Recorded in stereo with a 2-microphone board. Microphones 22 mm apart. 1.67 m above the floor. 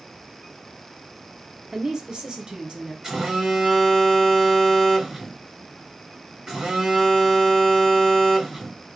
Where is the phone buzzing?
35° right (ahead or behind), 2 m.